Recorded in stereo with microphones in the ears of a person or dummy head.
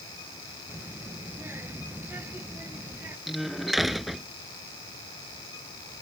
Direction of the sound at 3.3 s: Centre (ahead or behind).